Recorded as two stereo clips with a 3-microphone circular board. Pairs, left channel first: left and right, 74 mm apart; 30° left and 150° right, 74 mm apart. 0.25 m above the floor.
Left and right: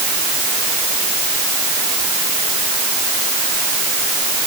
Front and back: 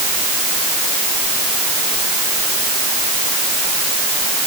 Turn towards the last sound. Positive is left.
No sound to turn to.